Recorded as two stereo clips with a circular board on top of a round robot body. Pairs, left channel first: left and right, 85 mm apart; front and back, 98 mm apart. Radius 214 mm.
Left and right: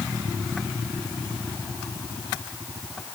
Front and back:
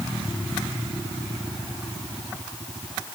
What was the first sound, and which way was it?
Only background noise.